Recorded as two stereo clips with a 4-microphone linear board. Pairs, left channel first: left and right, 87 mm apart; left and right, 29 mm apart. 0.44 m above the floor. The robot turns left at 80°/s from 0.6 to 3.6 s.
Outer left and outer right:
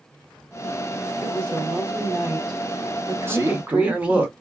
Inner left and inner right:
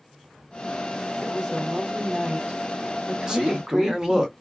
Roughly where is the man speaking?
Right.